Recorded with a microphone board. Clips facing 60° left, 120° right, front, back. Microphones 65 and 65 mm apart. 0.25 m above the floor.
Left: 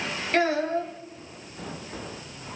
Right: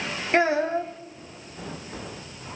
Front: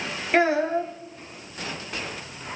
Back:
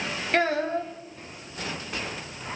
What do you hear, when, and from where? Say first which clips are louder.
0.3 s a child speaking: right 2 dB, front 4 dB; 70° right, 1.0 m